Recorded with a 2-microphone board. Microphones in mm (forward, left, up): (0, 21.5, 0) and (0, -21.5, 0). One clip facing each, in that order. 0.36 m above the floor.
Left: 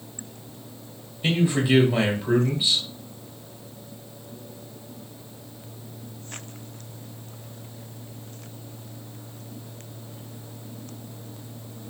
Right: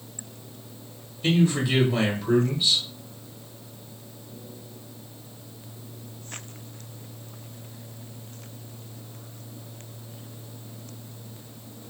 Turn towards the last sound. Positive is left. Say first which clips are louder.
# even
turn(degrees=15)  # may be behind; listen again after turning